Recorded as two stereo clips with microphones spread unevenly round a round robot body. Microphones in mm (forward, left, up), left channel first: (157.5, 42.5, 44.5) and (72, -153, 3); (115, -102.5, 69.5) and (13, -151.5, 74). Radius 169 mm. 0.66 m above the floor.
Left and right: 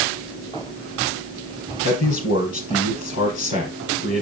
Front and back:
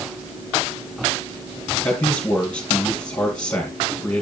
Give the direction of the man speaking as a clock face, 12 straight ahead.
9 o'clock.